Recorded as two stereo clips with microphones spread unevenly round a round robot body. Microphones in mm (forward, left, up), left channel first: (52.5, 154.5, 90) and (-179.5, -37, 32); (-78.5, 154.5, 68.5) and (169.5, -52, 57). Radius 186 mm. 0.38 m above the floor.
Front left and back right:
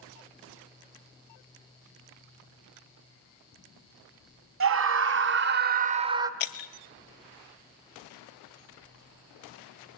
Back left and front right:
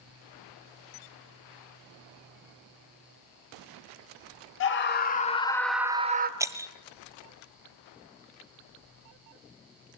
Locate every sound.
4.6 s a scream: 170° right, 2 m; by 6.3 s 80° right, 1.4 m
6.4 s breaking glass: 40° left, 1.3 m